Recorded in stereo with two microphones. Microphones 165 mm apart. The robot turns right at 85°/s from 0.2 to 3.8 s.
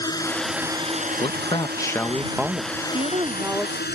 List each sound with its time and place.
0.0 s a drone: 25° left (ahead or behind); by 4.0 s 80° left
1.2 s a man speaking: 90° left; by 2.7 s 140° right
2.9 s a woman speaking: 55° right; by 3.9 s 15° left